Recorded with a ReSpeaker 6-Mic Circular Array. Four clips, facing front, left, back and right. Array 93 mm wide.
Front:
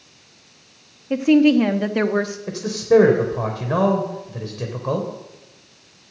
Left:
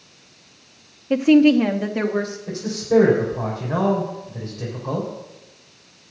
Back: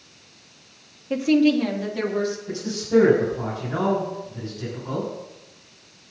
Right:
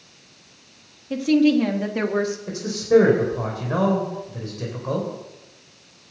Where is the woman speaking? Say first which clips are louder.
Left 4 dB, front 4 dB; 75° left, 1.0 m; by 2.4 s 10° right, 1.3 m.